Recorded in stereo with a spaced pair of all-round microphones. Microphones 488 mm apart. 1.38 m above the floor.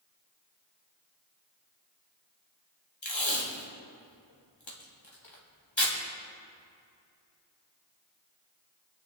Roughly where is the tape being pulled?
Left.